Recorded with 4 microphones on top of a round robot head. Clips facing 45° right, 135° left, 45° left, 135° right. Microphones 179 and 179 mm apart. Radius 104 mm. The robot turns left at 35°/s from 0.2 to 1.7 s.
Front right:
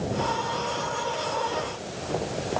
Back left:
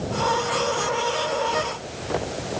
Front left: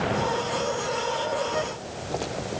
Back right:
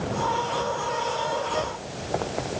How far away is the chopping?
No chopping in this recording.